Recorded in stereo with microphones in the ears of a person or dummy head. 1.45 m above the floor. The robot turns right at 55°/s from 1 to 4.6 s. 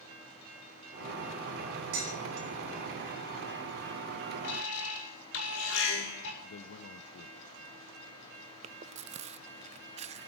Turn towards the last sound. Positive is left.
turn(degrees=-40)  # may be behind; listen again after turning